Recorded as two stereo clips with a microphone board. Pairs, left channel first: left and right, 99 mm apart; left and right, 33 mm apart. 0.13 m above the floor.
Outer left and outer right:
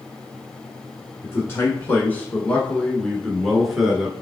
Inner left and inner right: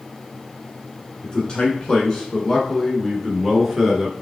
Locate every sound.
1.2 s a man speaking: 25° left (ahead or behind), 1.3 m; by 4.1 s 5° right (ahead or behind), 1.6 m